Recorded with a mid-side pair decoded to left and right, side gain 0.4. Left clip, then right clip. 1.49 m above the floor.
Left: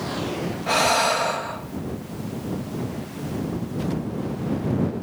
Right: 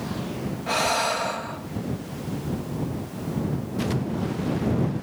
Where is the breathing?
25° left.